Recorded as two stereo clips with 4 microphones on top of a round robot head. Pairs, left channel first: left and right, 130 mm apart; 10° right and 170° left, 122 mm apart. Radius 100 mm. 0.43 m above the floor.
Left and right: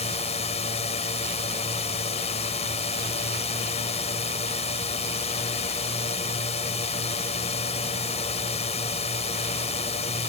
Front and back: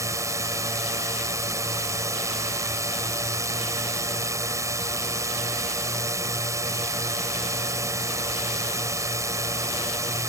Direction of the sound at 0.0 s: 115° left.